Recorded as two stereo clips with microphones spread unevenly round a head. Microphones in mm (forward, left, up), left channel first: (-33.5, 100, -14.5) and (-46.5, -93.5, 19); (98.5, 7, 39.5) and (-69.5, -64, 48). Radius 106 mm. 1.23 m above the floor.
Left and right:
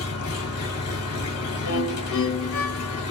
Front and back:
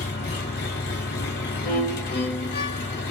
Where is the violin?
75° left, 1.8 m.